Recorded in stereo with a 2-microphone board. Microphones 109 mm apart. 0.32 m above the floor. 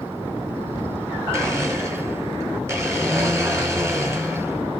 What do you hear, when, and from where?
1.3 s a blender: 25° right (ahead or behind), 1.2 m